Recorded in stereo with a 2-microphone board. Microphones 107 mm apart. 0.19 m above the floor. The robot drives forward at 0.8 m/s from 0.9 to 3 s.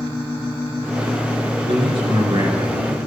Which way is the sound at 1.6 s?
60° right (ahead or behind).